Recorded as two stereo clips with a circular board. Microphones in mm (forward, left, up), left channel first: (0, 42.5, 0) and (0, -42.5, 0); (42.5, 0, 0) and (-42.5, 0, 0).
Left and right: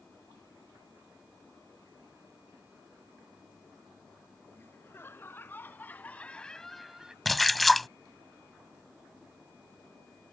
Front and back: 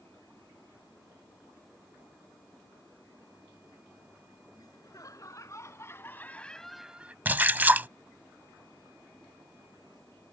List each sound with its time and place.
4.6 s laughter: 30° left; by 7.2 s 155° right
7.2 s a splash: straight behind